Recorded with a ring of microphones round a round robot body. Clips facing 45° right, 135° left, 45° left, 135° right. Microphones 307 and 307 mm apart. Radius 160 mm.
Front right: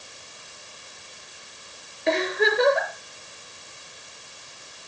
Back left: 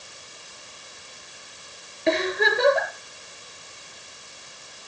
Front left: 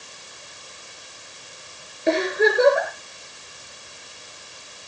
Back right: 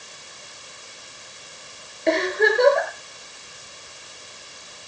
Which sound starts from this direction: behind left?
A giggle, at 2.1 s.